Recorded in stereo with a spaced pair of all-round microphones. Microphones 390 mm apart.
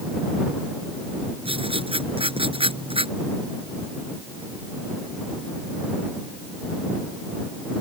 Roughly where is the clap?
I don't hear a clap.